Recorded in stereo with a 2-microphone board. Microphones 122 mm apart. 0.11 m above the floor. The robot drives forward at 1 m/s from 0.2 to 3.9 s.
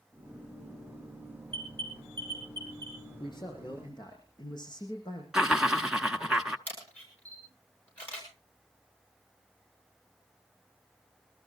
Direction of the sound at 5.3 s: 5° right (ahead or behind).